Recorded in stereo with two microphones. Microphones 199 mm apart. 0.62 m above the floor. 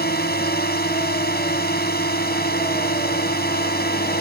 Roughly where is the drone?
Left.